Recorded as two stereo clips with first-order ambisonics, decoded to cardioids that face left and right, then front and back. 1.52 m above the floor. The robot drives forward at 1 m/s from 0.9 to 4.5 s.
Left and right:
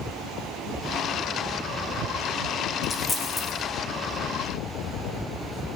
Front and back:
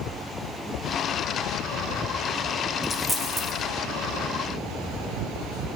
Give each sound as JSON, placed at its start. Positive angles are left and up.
{"t": 2.8, "sound": "a dropped coin", "azimuth_deg": 45, "distance_m": 0.9}